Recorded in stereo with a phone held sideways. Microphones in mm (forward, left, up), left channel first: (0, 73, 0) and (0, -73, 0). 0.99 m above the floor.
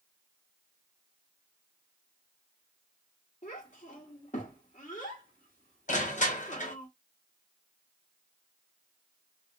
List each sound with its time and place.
3.4 s a child speaking: 55° left (ahead or behind), 1.0 m
5.9 s crushing: 60° left (ahead or behind), 0.8 m